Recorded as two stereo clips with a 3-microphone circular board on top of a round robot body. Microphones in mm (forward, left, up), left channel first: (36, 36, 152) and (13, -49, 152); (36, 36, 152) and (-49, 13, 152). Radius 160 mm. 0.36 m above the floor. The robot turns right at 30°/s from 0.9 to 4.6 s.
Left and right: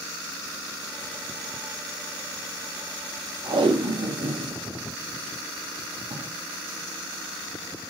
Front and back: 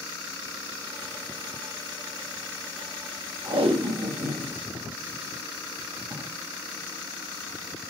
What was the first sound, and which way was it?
Tape being pulled, 150° right.